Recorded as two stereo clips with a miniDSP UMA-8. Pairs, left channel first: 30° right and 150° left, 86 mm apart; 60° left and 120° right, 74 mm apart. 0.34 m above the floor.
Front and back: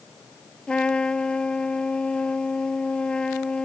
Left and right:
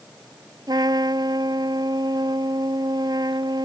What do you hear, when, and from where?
0.7 s a trumpet: 110° right